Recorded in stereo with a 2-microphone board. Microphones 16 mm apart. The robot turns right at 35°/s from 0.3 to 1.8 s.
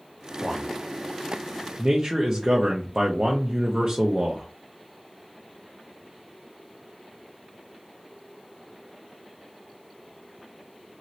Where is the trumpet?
I don't hear a trumpet.